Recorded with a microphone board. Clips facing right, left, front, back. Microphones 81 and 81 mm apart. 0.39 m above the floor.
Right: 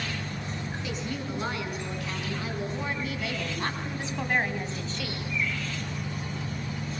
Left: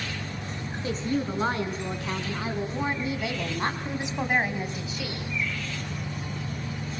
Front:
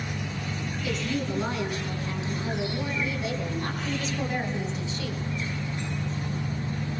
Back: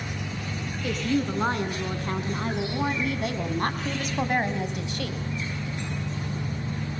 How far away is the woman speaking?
About 3.5 m.